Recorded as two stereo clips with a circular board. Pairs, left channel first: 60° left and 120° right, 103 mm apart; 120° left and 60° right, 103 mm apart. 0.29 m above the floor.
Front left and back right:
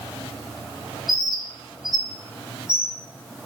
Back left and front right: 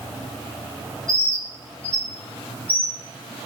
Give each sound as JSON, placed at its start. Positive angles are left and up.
{"t": 1.1, "sound": "a bird", "azimuth_deg": -160, "distance_m": 5.0}